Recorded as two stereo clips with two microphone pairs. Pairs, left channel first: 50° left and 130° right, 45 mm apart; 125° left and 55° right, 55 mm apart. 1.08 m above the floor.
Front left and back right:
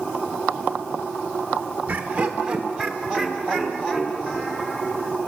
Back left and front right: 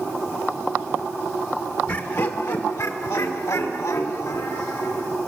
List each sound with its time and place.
1.9 s laughter: 170° left, 0.6 m; by 5.1 s 110° left, 2.5 m